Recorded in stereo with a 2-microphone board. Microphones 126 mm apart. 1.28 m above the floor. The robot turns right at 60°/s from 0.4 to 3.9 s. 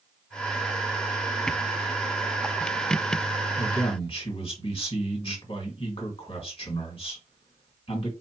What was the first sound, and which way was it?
A man speaking, 25° left (ahead or behind).